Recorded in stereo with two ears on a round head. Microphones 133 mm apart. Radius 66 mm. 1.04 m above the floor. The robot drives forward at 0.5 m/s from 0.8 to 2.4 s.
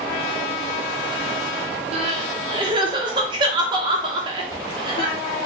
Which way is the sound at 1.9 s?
40° right (ahead or behind).